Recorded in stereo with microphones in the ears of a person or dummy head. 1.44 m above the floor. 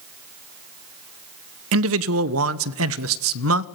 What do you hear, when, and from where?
1.7 s a man speaking: 75° right (ahead or behind), 1.0 m